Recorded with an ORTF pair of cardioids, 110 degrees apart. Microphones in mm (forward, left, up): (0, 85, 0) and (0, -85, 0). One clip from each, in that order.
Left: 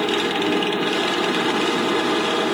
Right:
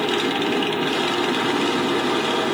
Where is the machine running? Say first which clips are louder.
Left 1 dB; 10° left, 0.9 m.